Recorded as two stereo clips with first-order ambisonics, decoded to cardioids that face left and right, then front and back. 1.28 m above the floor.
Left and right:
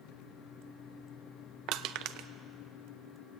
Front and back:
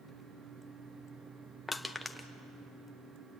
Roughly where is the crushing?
Right.